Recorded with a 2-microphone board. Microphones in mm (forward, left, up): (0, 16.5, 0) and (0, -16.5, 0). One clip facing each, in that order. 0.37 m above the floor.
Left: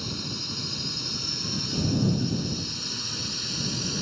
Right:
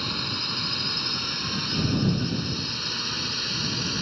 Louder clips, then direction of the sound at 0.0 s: Right 5 dB; 35° right (ahead or behind).